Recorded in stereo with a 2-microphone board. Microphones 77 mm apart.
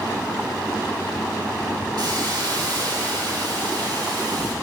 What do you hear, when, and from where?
2.0 s a hiss: 65° right (ahead or behind), 2.5 m